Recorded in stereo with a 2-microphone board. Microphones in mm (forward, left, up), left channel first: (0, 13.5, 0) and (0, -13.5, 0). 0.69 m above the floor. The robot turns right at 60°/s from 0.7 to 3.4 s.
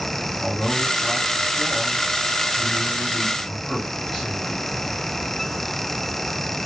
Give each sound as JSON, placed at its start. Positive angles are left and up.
{"t": 0.4, "sound": "a man speaking", "azimuth_deg": 0, "distance_m": 2.0}